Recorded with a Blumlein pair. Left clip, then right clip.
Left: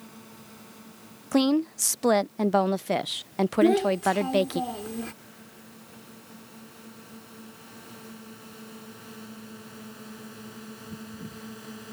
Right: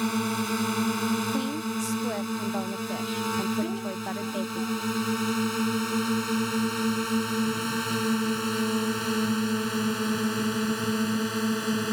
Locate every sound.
0.0 s a drone: 50° right; by 11.9 s 35° right
1.3 s a woman speaking: 30° left
3.6 s a child speaking: 35° left